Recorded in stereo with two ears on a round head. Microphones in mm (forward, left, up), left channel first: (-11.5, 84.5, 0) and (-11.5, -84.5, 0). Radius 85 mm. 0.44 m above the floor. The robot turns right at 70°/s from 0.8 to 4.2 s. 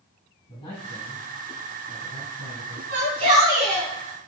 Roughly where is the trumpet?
I don't hear a trumpet.